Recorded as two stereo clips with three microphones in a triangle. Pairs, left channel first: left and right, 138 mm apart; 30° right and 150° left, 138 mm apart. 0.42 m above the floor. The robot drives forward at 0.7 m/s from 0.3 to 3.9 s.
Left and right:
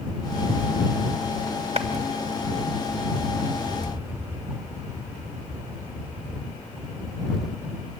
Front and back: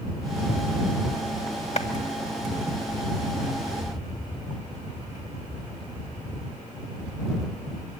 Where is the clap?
55° right, 1.6 m.